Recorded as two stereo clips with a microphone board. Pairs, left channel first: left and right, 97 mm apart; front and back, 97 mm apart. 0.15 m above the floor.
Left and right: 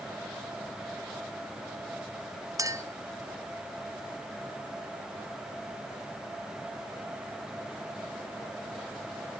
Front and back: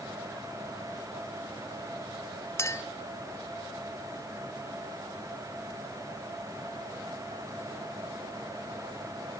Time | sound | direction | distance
2.6 | a clink | 50° right | 1.3 m